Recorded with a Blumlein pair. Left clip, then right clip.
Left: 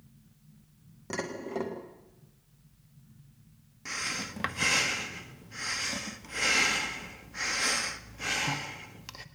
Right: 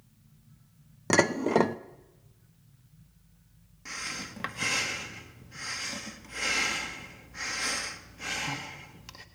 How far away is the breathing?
About 1.3 m.